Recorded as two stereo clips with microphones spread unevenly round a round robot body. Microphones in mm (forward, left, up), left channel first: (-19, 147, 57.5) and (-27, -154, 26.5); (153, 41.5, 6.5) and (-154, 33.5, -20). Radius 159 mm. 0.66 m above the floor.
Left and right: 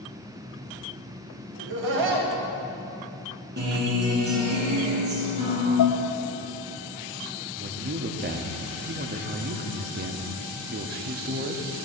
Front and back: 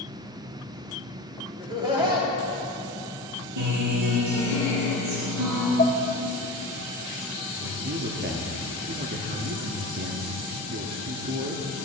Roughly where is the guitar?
Behind right.